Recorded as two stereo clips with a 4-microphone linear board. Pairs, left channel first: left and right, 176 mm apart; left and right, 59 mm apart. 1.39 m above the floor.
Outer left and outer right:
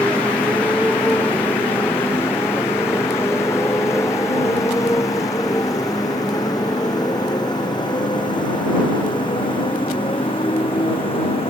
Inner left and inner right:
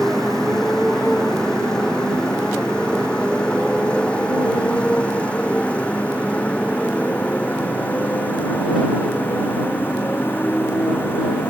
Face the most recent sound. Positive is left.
turn(degrees=30)  # may be behind; listen again after turning